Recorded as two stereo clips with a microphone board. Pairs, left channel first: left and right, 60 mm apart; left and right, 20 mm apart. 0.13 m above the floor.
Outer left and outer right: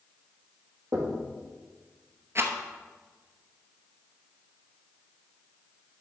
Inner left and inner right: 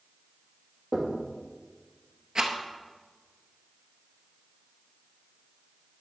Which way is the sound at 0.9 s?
55° right (ahead or behind).